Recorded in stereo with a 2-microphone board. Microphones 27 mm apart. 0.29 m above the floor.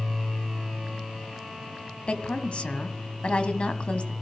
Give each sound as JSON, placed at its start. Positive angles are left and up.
{"t": 2.1, "sound": "a woman speaking", "side_deg": 50, "distance_m": 1.8}